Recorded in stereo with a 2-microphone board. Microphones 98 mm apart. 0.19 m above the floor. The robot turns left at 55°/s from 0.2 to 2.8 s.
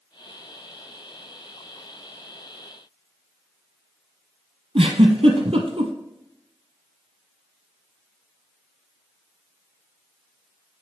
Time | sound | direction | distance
4.8 | a giggle | 80° right | 1.1 m